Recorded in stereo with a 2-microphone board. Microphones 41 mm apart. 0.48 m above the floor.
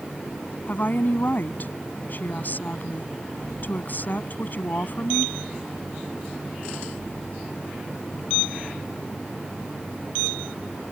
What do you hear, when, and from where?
0.7 s a woman speaking: 45° left (ahead or behind)